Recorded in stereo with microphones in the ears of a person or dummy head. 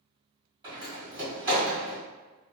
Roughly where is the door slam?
Right.